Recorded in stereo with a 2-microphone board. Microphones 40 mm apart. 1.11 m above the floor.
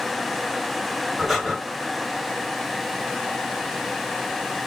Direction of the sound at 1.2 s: Centre (ahead or behind).